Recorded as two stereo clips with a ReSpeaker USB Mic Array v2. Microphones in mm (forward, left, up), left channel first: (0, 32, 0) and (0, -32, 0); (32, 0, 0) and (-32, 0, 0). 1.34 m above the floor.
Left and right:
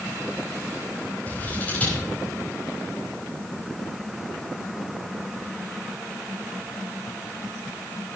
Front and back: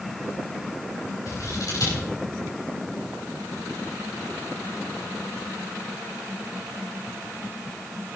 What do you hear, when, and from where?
1.3 s scissors: 25° left, 4.5 m